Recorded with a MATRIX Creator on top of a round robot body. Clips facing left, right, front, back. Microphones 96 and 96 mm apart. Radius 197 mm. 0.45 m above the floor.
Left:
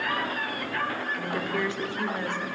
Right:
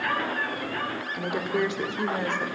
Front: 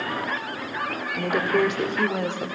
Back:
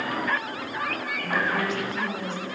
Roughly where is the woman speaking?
Ahead.